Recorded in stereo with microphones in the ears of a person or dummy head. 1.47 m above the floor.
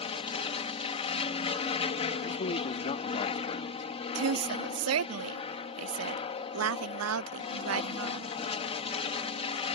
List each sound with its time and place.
0.0 s an aircraft: 30° left (ahead or behind)
2.2 s a man speaking: 35° left (ahead or behind)
4.2 s a woman speaking: 80° right